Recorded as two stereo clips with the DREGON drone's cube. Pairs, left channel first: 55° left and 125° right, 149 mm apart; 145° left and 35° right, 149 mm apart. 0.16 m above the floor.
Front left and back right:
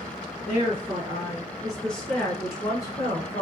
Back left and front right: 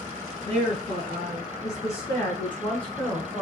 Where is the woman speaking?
175° left, 1.6 m; by 3.4 s 55° left, 1.4 m.